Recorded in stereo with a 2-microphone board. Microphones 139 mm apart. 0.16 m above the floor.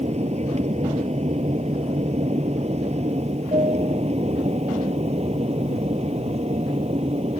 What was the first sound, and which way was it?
An aircraft, 50° right (ahead or behind).